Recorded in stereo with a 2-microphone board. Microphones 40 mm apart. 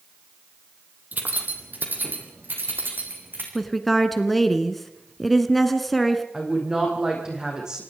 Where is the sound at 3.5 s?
Centre (ahead or behind), 1.7 m.